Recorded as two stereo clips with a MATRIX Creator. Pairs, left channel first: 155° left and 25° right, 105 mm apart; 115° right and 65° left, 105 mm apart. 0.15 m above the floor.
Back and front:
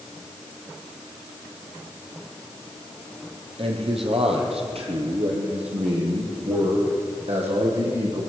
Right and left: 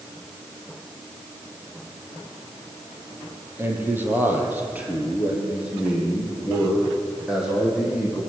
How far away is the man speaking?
About 5.5 m.